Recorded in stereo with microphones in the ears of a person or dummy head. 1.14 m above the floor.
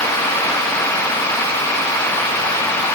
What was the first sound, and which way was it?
Only background noise.